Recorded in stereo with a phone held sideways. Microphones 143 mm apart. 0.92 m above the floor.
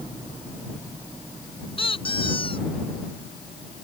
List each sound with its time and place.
1.8 s a squeak: 40° left (ahead or behind)